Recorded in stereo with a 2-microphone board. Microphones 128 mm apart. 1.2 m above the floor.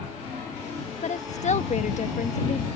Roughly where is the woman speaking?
Left.